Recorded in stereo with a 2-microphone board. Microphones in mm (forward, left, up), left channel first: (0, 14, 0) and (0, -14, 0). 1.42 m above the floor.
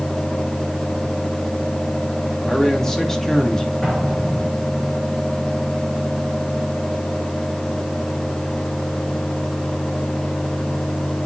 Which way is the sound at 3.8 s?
10° left (ahead or behind).